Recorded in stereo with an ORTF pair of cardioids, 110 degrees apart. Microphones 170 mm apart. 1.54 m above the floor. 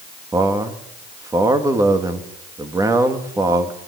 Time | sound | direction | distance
0.3 | a man speaking | 20° right | 3 m